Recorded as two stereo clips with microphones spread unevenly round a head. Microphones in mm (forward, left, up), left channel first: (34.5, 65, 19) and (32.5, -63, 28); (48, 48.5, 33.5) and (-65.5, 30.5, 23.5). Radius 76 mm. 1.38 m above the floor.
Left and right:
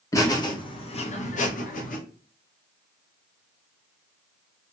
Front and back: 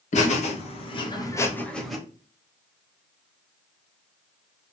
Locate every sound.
0.1 s laughter: 25° left, 1.2 m; by 2.0 s 105° left, 0.9 m